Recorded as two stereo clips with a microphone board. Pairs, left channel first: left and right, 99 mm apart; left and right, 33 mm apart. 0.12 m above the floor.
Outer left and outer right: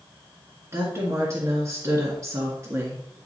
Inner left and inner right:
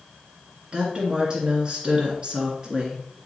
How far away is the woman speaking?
About 1.8 m.